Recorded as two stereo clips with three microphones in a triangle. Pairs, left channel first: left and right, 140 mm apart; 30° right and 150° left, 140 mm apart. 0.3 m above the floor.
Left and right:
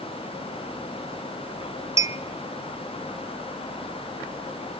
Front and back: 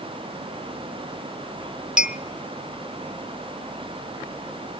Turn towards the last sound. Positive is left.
turn(degrees=-130)